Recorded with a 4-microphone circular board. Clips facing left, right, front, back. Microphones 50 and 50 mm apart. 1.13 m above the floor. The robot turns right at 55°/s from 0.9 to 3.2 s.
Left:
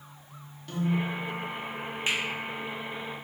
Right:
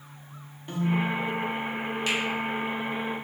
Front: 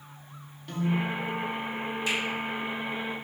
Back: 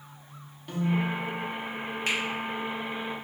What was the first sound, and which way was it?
A piano, 110° right.